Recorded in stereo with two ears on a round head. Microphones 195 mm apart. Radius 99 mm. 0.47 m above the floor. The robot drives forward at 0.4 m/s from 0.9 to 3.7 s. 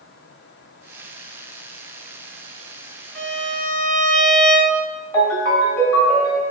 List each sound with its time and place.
3.1 s a violin: 5° left (ahead or behind), 1.0 m
5.1 s a ringtone: 15° left (ahead or behind), 1.7 m